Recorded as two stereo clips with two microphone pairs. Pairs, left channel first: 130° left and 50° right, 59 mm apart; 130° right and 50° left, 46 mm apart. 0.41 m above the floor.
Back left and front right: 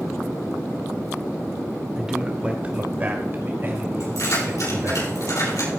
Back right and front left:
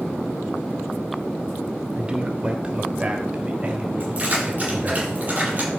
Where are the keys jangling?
110° left, 7.5 m.